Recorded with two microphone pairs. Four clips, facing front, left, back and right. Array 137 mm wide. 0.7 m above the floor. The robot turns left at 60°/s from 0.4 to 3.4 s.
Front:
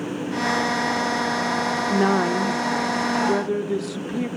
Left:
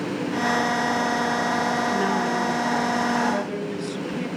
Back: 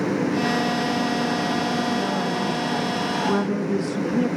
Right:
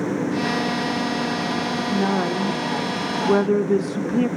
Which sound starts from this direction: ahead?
A woman speaking, at 1.9 s.